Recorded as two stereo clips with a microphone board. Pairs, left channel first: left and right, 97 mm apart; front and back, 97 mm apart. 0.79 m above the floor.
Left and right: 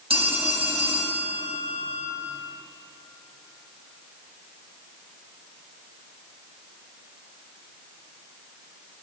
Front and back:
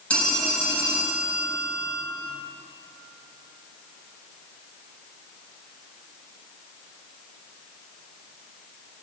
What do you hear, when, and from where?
0.1 s a phone ringing: 80° right, 2.5 m